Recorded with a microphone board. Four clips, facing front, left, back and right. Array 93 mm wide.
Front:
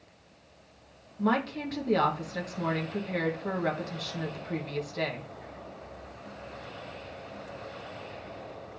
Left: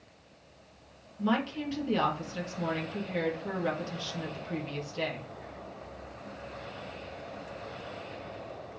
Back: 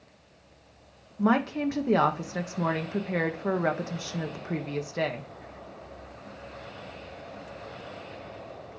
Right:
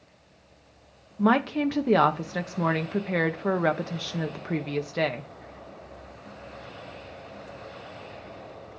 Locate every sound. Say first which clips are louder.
1.2 s a woman speaking: right 7 dB, back 4 dB; 110° right, 1.4 m